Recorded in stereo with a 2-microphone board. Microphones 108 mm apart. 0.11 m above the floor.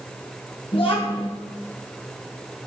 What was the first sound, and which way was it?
A child speaking, 55° left (ahead or behind).